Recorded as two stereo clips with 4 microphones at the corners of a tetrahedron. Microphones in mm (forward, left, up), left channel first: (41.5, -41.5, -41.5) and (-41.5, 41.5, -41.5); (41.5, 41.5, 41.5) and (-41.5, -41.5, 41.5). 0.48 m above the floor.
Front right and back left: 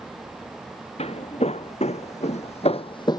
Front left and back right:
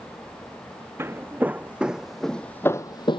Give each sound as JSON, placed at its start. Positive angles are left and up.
{"t": 1.0, "sound": "footsteps", "azimuth_deg": -65}